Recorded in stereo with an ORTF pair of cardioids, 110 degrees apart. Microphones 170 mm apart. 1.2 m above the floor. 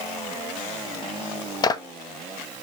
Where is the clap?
25° left, 0.8 m.